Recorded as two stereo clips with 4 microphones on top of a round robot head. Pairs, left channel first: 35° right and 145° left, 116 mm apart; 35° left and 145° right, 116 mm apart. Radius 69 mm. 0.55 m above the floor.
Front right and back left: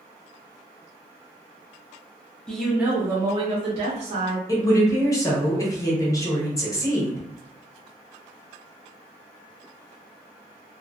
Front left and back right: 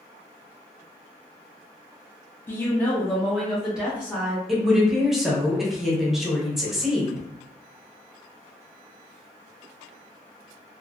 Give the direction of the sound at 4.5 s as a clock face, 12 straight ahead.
2 o'clock.